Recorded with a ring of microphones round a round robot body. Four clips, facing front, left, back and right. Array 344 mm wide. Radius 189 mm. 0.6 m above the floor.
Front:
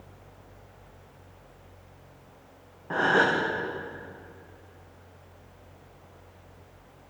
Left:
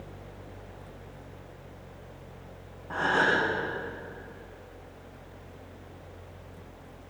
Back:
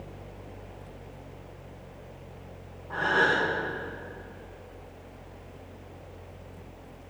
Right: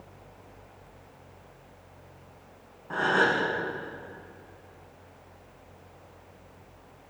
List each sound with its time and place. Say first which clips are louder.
2.9 s a gasp: right 1 dB, front 2 dB; 5° right, 8 m